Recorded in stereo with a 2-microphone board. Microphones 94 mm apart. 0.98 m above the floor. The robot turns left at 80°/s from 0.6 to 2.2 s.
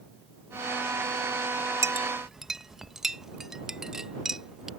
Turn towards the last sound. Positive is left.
turn(degrees=-5)  # may be behind; listen again after turning